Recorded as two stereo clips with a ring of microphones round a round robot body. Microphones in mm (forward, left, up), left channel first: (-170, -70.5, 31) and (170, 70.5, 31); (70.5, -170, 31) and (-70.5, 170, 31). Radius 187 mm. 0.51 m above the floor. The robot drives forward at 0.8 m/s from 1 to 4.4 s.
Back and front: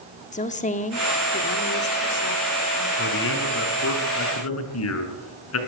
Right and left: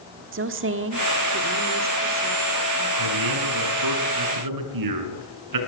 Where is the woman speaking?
145° left, 1.5 m; by 2.9 s 165° left, 2.5 m.